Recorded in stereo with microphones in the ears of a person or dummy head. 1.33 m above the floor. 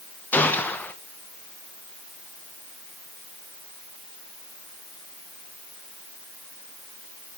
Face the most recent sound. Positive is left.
turn(degrees=10)  # may be behind; listen again after turning